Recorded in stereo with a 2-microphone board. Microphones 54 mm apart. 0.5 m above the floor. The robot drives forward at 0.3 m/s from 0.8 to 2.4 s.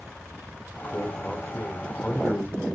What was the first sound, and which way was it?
A man speaking, 30° left (ahead or behind).